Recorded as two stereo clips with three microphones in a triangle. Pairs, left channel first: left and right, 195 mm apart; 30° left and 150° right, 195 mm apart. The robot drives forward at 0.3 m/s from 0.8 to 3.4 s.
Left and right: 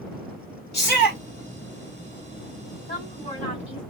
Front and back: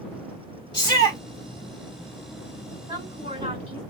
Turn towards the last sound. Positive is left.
turn(degrees=155)